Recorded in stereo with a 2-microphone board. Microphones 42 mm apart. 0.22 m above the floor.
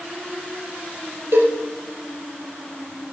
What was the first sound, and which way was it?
A cowbell, 75° right (ahead or behind).